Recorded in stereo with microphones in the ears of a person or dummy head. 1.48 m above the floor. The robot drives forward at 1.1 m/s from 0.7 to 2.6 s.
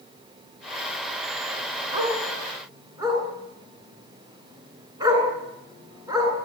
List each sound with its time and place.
1.9 s a dog barking: 20° right (ahead or behind), 7.5 m